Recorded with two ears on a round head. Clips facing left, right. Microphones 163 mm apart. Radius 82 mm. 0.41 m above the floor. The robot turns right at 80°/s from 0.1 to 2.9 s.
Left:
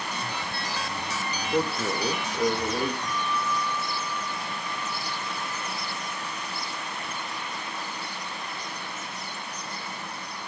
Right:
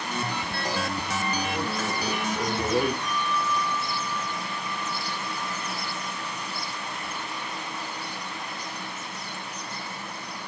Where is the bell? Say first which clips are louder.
Right 1 dB; 20° left (ahead or behind), 1.3 m.